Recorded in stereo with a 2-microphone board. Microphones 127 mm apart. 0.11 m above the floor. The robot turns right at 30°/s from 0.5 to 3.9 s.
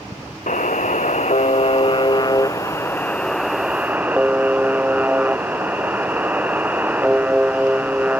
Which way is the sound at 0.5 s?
90° left.